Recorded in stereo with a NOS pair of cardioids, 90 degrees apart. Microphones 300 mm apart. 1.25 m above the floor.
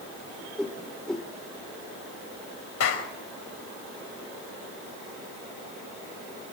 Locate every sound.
0.6 s a whoosh: straight ahead, 2.5 m
2.8 s a clap: 55° left, 5 m